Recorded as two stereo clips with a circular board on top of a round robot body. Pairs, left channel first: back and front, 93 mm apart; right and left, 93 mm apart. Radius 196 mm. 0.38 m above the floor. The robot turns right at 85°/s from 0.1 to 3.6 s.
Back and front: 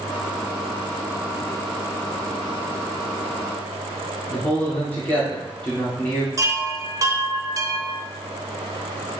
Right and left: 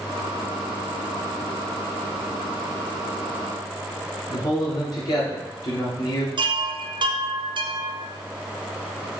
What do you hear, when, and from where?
4.3 s a man speaking: 115° right, 2.0 m
6.4 s a chime: 55° left, 0.8 m